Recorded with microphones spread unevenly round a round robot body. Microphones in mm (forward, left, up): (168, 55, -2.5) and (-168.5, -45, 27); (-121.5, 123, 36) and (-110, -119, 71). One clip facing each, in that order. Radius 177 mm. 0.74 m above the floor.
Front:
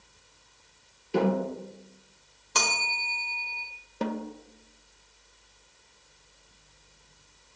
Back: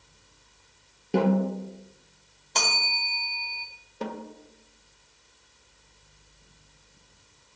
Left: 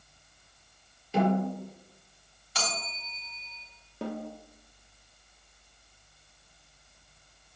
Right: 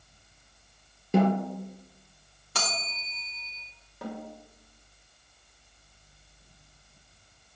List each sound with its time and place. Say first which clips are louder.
1.1 s a snare drum: back 2 dB, right 2 dB; 125° right, 3.5 m
2.5 s a bell: even, even; 50° right, 1.6 m
4.0 s a snare drum: front 4 dB, left 3 dB; 30° left, 0.8 m